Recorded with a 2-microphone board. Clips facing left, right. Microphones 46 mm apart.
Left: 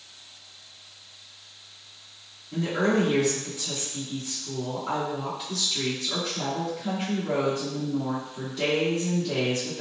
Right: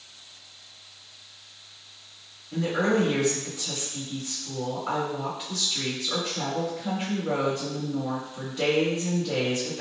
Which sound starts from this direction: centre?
A woman speaking, at 2.5 s.